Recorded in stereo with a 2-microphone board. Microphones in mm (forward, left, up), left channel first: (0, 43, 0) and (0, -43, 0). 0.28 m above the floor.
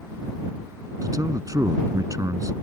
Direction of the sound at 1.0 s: 40° right (ahead or behind).